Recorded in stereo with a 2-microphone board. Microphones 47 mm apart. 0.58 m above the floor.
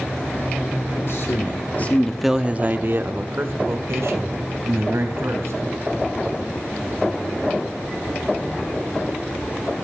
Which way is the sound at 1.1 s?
60° left (ahead or behind).